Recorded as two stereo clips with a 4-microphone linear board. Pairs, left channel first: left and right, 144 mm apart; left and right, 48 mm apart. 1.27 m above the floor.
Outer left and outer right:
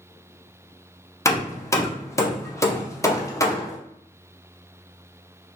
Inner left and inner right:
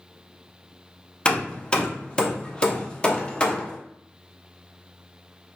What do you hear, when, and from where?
1.2 s hammering: 20° left (ahead or behind), 0.5 m